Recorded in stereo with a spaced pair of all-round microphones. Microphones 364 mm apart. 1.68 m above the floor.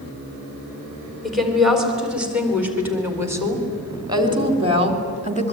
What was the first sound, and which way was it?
A woman speaking, centre (ahead or behind).